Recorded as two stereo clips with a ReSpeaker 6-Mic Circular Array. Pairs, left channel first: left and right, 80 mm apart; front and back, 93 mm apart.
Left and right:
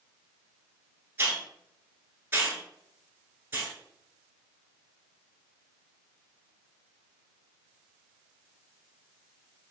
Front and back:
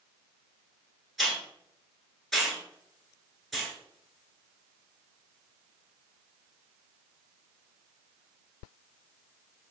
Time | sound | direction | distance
1.2 | a hiss | 85° right | 1.2 m